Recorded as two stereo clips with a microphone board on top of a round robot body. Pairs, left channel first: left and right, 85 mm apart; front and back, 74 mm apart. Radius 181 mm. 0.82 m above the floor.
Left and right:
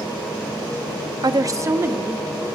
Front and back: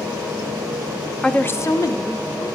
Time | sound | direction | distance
1.2 | a woman speaking | 80° right | 0.7 m